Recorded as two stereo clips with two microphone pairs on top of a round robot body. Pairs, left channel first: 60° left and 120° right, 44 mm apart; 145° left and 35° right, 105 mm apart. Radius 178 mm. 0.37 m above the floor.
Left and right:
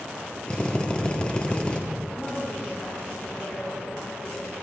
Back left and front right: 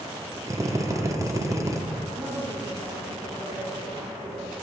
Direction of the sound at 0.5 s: 5° left.